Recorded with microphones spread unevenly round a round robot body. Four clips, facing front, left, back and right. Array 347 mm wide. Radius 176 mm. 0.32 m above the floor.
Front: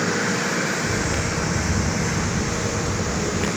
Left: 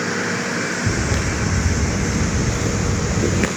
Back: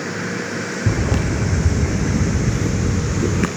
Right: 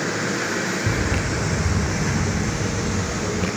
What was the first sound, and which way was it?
Footsteps, 175° left.